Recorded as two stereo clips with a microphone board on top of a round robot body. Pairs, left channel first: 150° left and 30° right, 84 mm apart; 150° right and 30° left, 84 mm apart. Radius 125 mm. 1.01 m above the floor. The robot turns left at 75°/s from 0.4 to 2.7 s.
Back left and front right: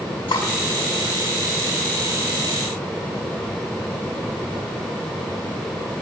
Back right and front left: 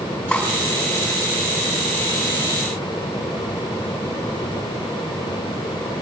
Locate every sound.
0.3 s cutlery clinking: 145° left, 5 m; by 0.5 s 140° left, 5 m